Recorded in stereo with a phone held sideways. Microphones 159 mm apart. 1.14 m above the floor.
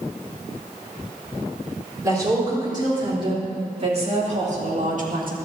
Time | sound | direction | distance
2.0 | a woman speaking | 25° right (ahead or behind) | 3.5 m